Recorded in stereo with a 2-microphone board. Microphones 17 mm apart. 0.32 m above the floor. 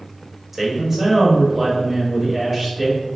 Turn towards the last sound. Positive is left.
turn(degrees=-20)  # may be behind; listen again after turning